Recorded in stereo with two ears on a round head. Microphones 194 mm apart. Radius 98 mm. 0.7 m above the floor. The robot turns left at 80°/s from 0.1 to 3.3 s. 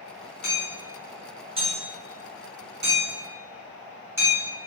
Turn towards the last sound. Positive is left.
turn(degrees=-15)  # may be behind; listen again after turning